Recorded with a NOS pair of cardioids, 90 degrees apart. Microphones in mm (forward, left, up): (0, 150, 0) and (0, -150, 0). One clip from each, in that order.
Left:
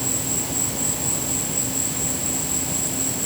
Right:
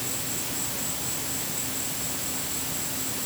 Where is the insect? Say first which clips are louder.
Left 6 dB; 55° left.